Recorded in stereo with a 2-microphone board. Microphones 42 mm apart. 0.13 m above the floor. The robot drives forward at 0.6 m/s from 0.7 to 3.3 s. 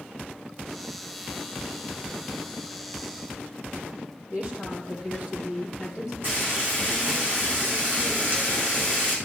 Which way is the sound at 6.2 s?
50° right (ahead or behind).